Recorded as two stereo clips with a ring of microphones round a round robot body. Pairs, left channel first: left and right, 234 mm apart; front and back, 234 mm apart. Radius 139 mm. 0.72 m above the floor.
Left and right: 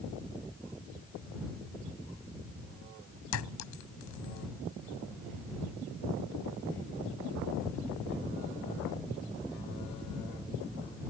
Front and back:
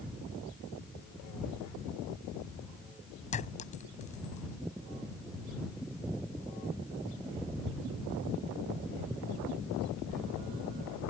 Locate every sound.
3.3 s a clink: 65° left